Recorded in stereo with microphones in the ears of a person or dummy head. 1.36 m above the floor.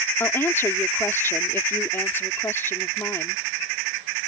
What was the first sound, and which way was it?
A woman speaking, 15° left (ahead or behind).